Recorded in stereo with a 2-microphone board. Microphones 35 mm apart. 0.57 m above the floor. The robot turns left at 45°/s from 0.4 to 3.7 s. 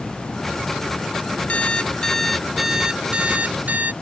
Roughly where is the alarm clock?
Ahead left.